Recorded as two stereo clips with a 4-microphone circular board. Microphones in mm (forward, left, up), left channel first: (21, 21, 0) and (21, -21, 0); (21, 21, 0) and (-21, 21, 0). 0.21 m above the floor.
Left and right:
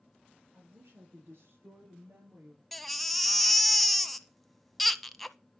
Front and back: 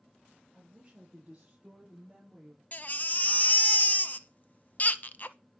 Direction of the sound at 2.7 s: 5° left.